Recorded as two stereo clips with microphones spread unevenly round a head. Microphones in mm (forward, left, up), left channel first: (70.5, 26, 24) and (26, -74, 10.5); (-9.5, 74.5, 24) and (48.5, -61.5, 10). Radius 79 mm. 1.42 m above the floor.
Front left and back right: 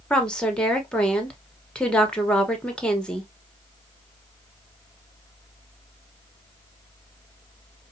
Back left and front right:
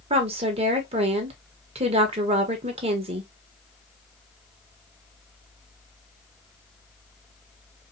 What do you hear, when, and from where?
0.1 s a woman speaking: 15° right, 1.4 m